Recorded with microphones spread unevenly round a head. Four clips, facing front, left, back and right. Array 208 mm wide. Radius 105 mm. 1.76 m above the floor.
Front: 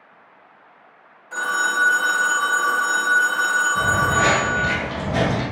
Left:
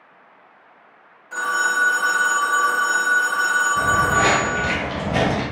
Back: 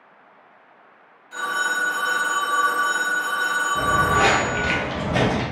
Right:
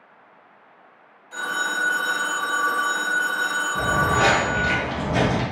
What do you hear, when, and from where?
1.3 s a phone ringing: 35° left, 0.8 m
3.8 s footsteps: 135° right, 1.9 m; by 5.4 s 110° left, 2 m